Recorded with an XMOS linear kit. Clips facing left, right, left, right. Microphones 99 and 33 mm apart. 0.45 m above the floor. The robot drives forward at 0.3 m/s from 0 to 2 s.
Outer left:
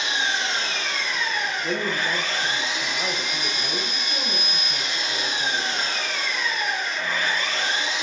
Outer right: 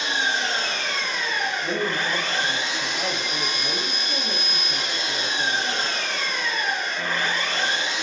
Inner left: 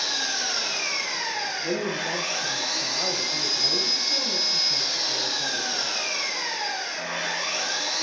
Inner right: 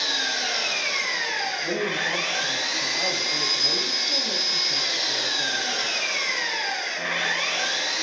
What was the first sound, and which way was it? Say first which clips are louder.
An engine running: outer right 1 dB, inner right 3 dB; 50° right (ahead or behind).